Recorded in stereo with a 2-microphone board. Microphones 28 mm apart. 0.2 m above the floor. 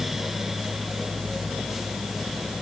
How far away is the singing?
I don't hear singing.